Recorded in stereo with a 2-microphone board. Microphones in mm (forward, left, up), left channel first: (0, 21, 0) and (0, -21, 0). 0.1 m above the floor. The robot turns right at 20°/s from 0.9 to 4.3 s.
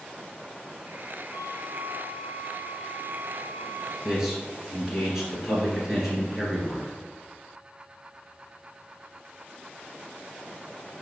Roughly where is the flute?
Behind right.